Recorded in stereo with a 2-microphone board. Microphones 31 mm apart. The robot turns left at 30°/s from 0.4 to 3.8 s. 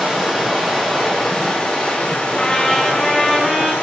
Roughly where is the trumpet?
Ahead left.